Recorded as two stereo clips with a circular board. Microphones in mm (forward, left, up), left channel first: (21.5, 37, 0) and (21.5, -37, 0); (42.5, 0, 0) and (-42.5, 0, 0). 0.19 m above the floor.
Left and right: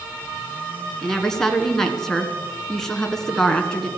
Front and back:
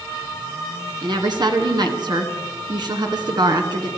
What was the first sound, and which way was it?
A woman speaking, 175° left.